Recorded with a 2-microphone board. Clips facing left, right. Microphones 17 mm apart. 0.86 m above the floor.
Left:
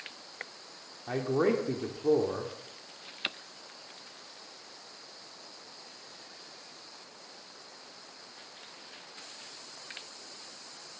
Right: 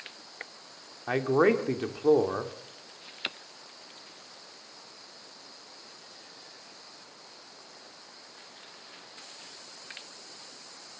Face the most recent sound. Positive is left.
turn(degrees=-45)  # may be behind; listen again after turning